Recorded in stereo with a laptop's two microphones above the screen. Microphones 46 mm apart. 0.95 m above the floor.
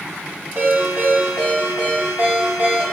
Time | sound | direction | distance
0.6 | a ringtone | 80° right | 1.6 m